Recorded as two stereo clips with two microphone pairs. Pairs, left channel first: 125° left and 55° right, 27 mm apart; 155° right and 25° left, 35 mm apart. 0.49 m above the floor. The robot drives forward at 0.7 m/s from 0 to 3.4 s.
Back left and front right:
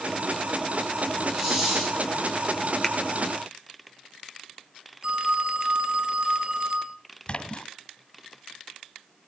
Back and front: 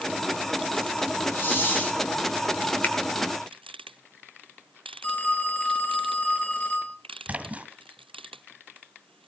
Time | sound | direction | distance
1.3 | a hiss | 145° right | 10 m
2.8 | a finger snap | 170° right | 1.4 m
5.0 | a phone ringing | 110° right | 2.5 m
7.3 | a splash | 75° left | 1.9 m